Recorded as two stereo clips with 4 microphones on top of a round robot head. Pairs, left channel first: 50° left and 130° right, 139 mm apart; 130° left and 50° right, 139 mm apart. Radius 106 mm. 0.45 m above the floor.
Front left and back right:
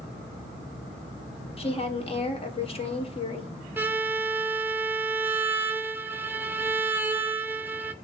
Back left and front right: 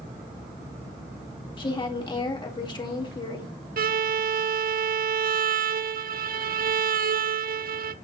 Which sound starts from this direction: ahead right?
A violin, at 3.8 s.